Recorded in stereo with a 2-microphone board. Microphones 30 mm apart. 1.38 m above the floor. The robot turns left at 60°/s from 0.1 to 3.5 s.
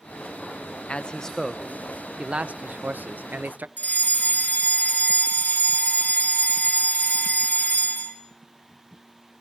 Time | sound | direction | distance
0.9 | a man speaking | 45° left | 0.8 m
3.8 | a fire alarm | 65° left (ahead or behind) | 5.5 m